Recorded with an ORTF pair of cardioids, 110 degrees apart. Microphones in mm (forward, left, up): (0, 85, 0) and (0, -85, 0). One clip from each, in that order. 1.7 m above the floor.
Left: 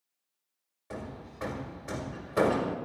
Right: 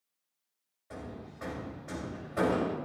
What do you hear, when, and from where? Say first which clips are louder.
0.9 s hammering: left 3 dB; 45° left, 2.0 m